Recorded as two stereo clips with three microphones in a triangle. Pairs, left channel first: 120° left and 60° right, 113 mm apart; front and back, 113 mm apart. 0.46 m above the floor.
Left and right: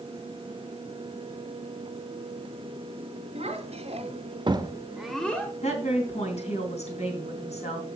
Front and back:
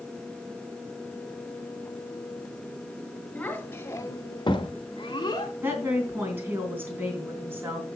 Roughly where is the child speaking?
Right.